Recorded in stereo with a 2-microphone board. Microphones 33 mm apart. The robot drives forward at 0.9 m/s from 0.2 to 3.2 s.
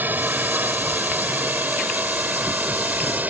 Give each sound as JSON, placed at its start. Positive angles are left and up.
{"t": 0.0, "sound": "a drone", "side_deg": -65}